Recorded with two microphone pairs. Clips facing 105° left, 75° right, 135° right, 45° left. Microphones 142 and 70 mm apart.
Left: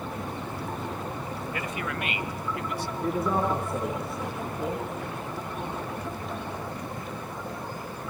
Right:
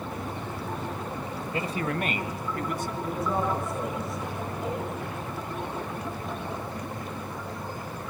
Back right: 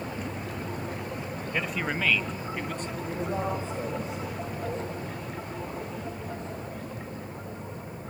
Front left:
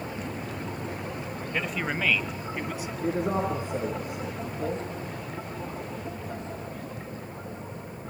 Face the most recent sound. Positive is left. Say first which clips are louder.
# left 3 dB, front left 5 dB
turn(degrees=75)